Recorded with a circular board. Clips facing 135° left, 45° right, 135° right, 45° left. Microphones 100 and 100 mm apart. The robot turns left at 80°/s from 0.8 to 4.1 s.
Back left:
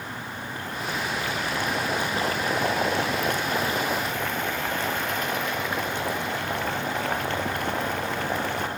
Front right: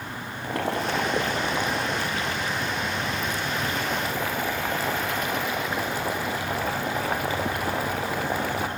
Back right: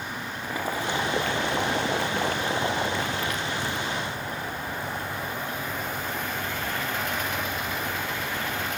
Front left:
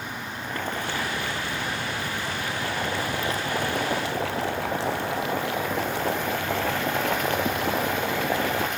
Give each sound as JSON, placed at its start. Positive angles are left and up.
{"t": 0.4, "sound": "boiling", "azimuth_deg": -55, "distance_m": 1.9}